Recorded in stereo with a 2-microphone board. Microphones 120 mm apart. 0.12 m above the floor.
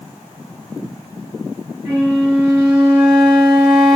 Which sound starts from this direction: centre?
A flute, at 1.9 s.